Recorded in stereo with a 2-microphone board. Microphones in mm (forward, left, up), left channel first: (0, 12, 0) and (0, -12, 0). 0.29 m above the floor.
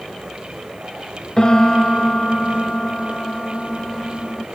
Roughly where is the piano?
Left.